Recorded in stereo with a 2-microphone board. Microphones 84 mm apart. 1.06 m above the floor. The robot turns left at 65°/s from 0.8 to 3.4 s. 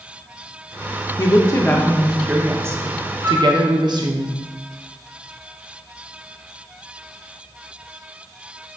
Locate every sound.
1.2 s a woman speaking: 60° left, 1.3 m; by 4.2 s 80° right, 1.3 m
3.2 s a flute: 30° right (ahead or behind), 1.5 m; by 3.5 s 40° right (ahead or behind), 1.5 m